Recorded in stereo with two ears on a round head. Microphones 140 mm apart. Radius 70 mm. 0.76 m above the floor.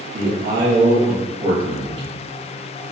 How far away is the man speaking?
About 1.5 m.